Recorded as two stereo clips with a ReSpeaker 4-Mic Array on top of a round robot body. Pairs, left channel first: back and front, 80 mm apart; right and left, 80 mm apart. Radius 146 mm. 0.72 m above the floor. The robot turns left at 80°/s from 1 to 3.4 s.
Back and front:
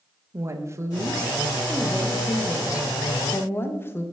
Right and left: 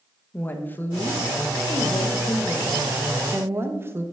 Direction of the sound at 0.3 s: 35° right.